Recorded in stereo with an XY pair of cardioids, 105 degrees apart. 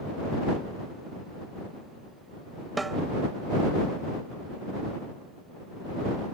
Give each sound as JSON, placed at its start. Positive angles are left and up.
{"t": 2.8, "sound": "a snare drum", "azimuth_deg": -20}